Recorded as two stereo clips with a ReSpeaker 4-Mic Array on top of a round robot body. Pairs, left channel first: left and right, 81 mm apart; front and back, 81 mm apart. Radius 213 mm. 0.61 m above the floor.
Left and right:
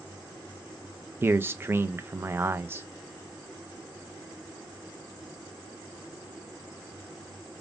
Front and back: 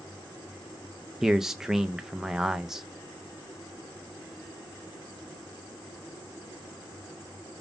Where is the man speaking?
100° right, 0.6 m.